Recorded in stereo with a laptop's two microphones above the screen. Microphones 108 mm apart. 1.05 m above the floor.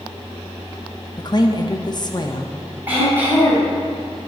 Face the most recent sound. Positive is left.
turn(degrees=-15)  # may be behind; listen again after turning